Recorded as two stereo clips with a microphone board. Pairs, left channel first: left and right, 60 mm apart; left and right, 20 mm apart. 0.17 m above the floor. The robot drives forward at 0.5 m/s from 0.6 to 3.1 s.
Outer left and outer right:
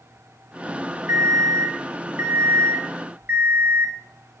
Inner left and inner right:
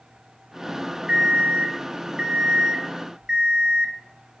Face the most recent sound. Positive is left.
turn(degrees=-35)  # may be behind; listen again after turning